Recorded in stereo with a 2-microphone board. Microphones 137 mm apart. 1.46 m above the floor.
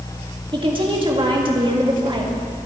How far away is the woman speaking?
About 2 m.